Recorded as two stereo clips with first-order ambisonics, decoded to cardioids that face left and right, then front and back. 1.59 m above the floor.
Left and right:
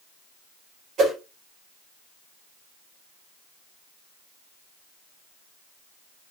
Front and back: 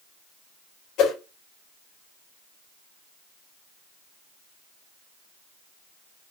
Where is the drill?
I don't hear a drill.